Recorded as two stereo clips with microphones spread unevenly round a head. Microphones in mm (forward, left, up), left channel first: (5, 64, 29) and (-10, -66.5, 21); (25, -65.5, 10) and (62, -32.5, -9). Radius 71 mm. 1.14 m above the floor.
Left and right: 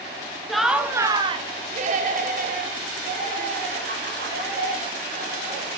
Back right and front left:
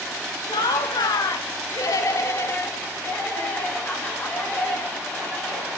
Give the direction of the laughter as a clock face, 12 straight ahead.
6 o'clock.